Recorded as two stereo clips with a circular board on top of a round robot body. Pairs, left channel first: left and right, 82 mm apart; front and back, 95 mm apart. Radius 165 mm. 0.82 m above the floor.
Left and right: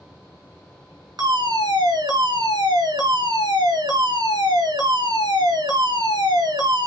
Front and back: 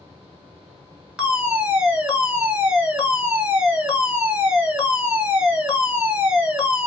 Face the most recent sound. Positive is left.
turn(degrees=-100)